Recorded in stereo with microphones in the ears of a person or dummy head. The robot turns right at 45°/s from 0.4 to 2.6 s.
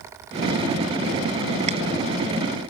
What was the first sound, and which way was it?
Chewing, 40° right (ahead or behind).